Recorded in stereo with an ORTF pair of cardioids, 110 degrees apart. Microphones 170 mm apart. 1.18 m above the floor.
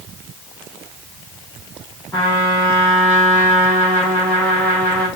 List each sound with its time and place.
2.1 s a trumpet: 15° left, 3 m